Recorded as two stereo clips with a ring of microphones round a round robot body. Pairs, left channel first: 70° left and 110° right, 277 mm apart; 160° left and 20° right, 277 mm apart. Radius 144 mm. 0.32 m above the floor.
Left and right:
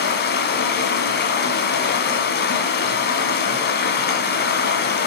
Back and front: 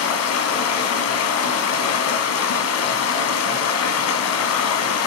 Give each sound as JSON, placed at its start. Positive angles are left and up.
{"t": 0.0, "sound": "running water", "azimuth_deg": 120, "distance_m": 1.5}